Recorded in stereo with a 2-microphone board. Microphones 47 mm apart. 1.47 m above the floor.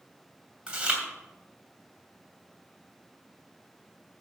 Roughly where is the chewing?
Right.